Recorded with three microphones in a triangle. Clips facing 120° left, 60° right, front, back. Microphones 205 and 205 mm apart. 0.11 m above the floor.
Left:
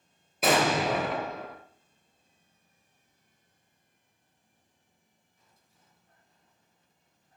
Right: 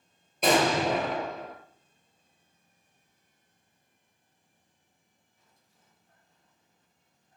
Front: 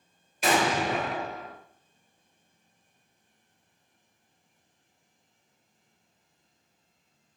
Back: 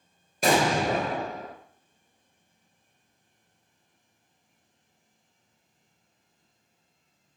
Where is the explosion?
155° right, 0.8 m.